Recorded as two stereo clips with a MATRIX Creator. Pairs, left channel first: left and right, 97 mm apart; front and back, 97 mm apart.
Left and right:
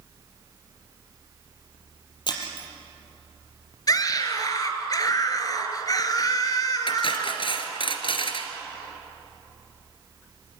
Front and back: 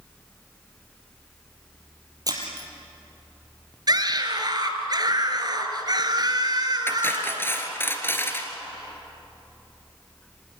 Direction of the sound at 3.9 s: 135° left.